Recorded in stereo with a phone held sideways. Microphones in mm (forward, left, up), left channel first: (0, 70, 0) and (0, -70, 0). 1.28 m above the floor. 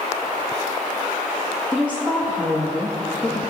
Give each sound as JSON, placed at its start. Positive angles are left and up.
{"t": 1.7, "sound": "a woman speaking", "side_deg": 10, "distance_m": 1.3}